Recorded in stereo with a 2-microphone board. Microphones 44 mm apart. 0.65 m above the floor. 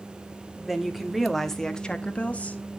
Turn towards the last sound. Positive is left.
turn(degrees=30)  # may be behind; listen again after turning